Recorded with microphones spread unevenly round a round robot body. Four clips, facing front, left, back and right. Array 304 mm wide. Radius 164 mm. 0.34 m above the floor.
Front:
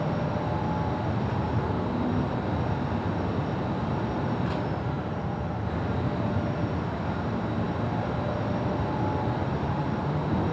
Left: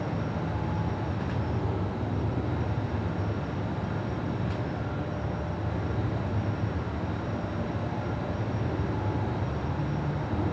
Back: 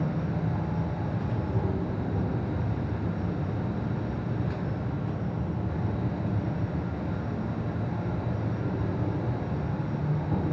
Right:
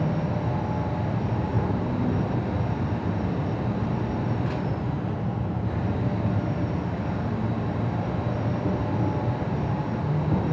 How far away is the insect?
About 9 m.